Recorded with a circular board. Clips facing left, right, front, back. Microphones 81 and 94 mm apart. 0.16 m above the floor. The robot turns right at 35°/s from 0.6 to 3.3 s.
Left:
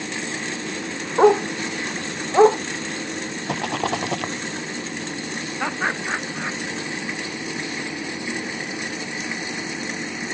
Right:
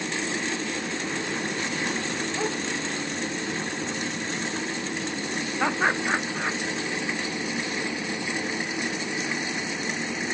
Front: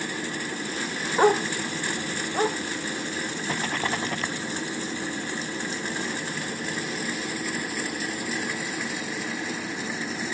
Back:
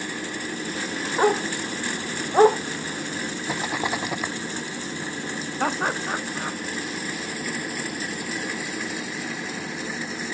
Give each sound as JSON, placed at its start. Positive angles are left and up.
{"t": 1.2, "sound": "a dog barking", "azimuth_deg": 85}
{"t": 3.5, "sound": "a rattle", "azimuth_deg": 100}
{"t": 5.6, "sound": "laughter", "azimuth_deg": -175}